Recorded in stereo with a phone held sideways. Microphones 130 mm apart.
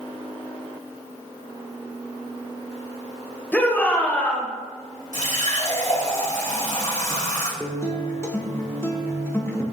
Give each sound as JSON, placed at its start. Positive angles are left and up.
{"t": 3.5, "sound": "a shout", "side_deg": 15, "distance_m": 1.0}
{"t": 5.1, "sound": "a running tap", "side_deg": 75, "distance_m": 2.5}
{"t": 7.6, "sound": "a guitar", "side_deg": 20, "distance_m": 0.7}